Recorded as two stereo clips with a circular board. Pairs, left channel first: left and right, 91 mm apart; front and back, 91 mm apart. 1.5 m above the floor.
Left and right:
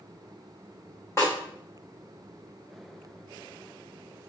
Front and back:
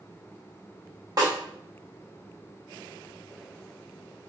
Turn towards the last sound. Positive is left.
turn(degrees=145)